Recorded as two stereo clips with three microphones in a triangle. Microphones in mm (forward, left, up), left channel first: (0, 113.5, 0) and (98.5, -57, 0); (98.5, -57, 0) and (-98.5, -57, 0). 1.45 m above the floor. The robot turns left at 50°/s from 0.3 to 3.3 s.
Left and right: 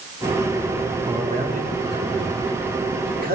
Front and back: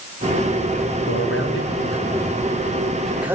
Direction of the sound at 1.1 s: 10° left.